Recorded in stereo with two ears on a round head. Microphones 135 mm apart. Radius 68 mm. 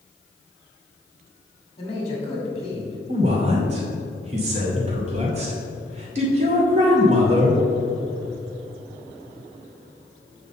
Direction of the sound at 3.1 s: 45° right (ahead or behind).